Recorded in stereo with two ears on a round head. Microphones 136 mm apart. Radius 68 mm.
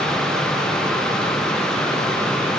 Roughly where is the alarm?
I don't hear an alarm.